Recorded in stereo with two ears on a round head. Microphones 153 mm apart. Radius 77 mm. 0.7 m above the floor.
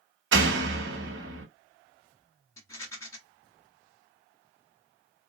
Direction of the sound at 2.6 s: 20° left (ahead or behind).